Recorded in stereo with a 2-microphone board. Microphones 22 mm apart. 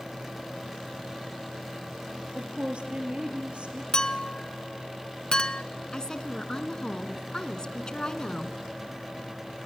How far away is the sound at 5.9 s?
About 1.9 m.